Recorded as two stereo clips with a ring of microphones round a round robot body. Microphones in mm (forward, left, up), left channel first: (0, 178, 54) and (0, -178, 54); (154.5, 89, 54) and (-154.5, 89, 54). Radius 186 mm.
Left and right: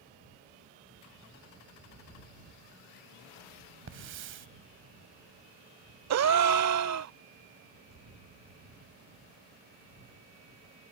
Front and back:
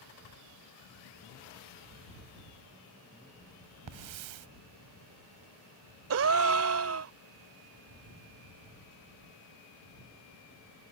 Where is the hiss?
150° right.